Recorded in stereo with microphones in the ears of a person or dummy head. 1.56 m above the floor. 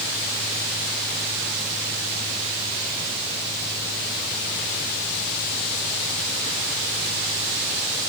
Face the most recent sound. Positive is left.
No sound to turn to.